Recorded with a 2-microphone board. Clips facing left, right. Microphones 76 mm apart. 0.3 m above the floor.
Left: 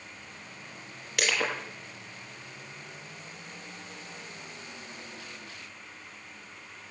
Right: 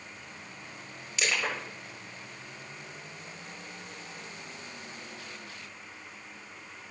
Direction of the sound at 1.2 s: 65° left (ahead or behind).